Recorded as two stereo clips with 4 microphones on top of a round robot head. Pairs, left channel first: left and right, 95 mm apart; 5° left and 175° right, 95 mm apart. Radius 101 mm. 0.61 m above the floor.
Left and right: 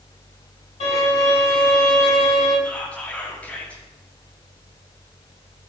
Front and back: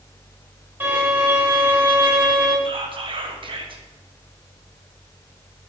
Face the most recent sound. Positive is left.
turn(degrees=165)